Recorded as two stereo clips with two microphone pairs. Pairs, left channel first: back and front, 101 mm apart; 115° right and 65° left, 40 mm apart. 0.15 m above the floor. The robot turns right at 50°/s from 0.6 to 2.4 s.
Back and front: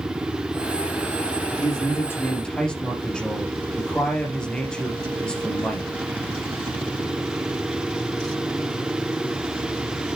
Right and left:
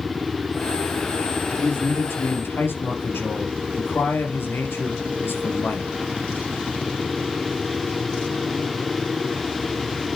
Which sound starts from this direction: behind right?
A man speaking, at 1.6 s.